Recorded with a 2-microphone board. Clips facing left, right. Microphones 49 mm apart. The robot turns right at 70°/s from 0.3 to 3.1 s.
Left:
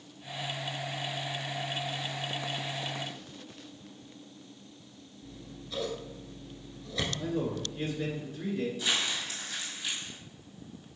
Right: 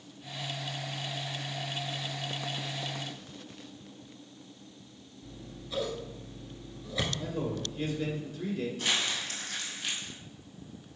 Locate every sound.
5.2 s scissors: 10° right (ahead or behind), 0.9 m
7.2 s a man speaking: 25° left (ahead or behind), 1.5 m
8.8 s crumpling: 50° right (ahead or behind), 2 m